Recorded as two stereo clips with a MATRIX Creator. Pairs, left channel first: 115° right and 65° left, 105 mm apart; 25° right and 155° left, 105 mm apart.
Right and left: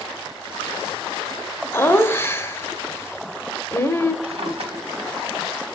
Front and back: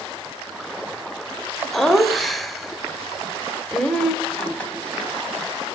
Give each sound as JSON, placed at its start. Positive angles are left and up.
{"t": 1.7, "sound": "laughter", "azimuth_deg": -110, "distance_m": 1.0}
{"t": 4.2, "sound": "a drawer", "azimuth_deg": 55, "distance_m": 1.8}